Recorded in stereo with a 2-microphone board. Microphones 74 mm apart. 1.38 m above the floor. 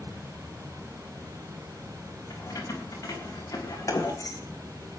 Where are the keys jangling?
50° left (ahead or behind), 6.5 m; by 4.4 s 55° left (ahead or behind), 3.5 m.